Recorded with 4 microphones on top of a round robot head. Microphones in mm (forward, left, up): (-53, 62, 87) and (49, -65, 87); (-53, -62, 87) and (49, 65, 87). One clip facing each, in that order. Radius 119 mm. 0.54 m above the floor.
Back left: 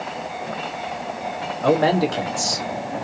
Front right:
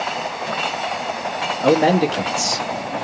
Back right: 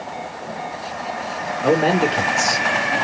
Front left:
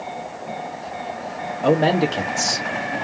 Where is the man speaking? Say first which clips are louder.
Front right 3 dB, even; 10° left, 1.5 m.